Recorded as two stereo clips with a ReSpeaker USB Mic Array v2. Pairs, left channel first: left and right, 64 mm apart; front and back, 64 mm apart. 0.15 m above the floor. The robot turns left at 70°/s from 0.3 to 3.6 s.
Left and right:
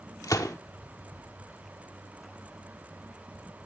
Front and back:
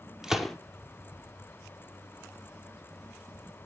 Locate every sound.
0.2 s a gunshot: 100° left, 1.0 m; by 0.6 s 80° left, 1.0 m